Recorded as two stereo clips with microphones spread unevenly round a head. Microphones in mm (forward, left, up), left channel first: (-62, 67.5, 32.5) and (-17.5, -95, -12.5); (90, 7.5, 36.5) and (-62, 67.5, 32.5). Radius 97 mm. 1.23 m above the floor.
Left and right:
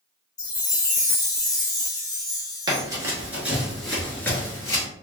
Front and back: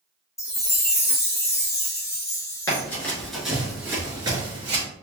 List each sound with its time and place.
0.4 s a chime: 50° left, 0.8 m
2.7 s running footsteps: 5° right, 1.2 m; by 4.8 s 130° left, 1.4 m